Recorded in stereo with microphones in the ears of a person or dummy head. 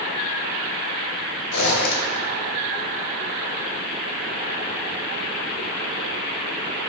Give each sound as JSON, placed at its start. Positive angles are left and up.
{"t": 1.5, "sound": "a zipper", "side_deg": 85, "distance_m": 1.0}